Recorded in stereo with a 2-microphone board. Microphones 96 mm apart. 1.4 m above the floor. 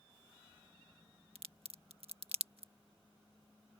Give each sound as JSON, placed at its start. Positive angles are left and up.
{"t": 1.4, "sound": "a crack", "side_deg": -80}